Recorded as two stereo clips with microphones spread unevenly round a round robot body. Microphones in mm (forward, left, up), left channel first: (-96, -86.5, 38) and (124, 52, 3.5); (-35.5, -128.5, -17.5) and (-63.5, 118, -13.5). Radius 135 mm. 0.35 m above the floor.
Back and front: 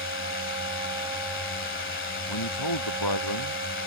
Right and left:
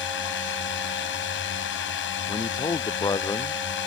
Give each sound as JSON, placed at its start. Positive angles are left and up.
{"t": 0.0, "sound": "a drone", "azimuth_deg": -110}
{"t": 2.3, "sound": "a man speaking", "azimuth_deg": -160}